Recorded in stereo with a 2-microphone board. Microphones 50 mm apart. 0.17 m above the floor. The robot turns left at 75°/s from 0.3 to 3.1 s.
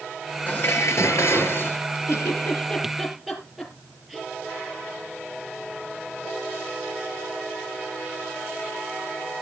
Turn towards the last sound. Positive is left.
turn(degrees=-5)  # may be behind; listen again after turning